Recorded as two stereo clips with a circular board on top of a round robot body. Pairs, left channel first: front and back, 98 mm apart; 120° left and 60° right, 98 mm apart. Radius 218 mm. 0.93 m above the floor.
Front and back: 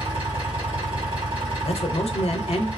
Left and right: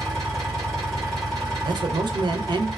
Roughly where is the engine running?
Behind right.